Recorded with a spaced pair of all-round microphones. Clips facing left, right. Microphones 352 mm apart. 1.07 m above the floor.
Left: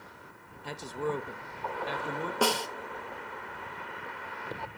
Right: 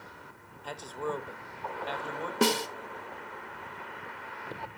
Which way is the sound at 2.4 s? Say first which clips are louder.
Right 3 dB; 30° right (ahead or behind).